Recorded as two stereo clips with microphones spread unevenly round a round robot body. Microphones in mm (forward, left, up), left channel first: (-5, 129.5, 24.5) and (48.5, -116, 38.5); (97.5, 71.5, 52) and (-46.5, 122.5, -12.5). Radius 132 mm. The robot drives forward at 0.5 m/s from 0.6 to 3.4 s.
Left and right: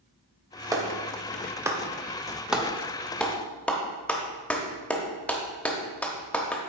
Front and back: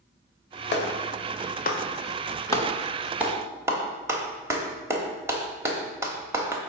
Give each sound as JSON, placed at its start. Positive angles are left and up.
{"t": 0.7, "sound": "a clap", "azimuth_deg": 0, "distance_m": 1.0}